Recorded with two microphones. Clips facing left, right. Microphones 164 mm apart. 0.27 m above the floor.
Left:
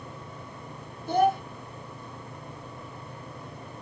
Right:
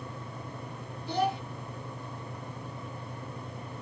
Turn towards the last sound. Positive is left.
turn(degrees=50)  # may be behind; listen again after turning